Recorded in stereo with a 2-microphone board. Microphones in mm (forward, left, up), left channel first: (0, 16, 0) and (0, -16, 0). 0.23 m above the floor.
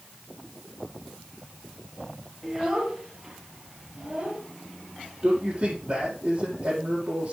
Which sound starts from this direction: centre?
A child speaking, at 2.4 s.